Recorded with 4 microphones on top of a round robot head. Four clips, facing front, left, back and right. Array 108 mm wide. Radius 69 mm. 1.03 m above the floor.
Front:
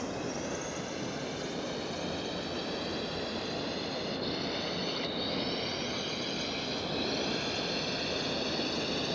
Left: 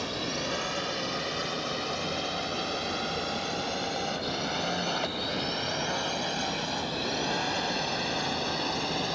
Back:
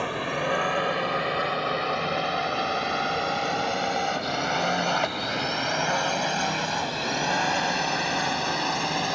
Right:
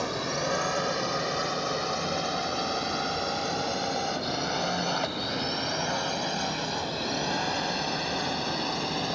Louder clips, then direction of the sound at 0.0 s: Right 3 dB, back 8 dB; 155° right.